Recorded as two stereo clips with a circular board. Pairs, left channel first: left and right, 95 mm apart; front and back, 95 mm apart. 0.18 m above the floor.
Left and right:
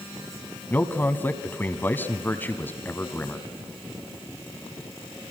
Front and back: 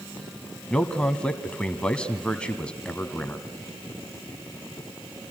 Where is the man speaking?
65° left, 1.3 m.